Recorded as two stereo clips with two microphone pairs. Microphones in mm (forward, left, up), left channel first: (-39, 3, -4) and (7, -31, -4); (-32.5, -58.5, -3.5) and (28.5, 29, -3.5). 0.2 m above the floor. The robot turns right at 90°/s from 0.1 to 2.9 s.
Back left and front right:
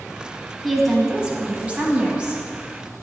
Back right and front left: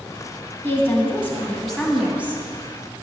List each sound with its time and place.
0.6 s a woman speaking: 140° right, 1.2 m; by 2.4 s 20° left, 1.2 m